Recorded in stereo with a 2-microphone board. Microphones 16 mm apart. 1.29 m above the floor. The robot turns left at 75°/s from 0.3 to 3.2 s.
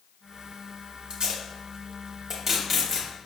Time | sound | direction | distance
1.1 | tape being pulled | 55° right (ahead or behind) | 0.8 m